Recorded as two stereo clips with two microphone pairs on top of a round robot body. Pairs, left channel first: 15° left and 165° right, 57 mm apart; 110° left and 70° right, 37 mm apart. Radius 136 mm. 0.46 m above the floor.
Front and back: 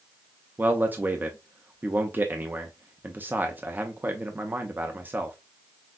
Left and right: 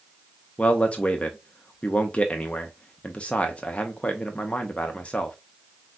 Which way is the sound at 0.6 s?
150° left.